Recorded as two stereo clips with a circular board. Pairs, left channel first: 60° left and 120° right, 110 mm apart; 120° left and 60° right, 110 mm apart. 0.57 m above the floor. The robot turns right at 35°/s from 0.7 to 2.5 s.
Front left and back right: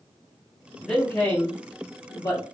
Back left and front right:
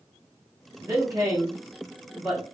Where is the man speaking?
20° right, 1.0 m; by 2.4 s 35° left, 1.0 m.